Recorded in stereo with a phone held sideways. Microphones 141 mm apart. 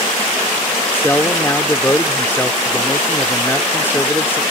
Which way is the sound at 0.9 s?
15° left (ahead or behind).